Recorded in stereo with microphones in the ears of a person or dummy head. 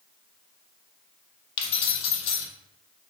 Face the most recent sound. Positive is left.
turn(degrees=30)  # may be behind; listen again after turning